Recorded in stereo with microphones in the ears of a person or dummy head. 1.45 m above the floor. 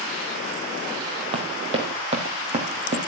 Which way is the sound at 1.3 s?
35° right (ahead or behind).